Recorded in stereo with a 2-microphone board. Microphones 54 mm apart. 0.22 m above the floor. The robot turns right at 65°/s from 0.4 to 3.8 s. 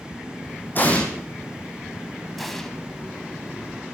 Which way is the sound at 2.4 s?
Centre (ahead or behind).